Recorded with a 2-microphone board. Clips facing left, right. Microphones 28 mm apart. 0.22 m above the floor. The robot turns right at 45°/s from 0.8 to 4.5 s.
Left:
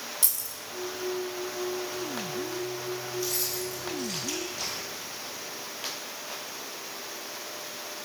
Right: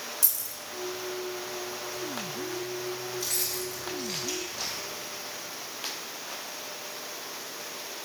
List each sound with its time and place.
0.2 s keys jangling: 50° left (ahead or behind), 1.0 m
3.2 s keys jangling: 60° right (ahead or behind), 2.5 m; by 4.8 s 5° right (ahead or behind), 2.5 m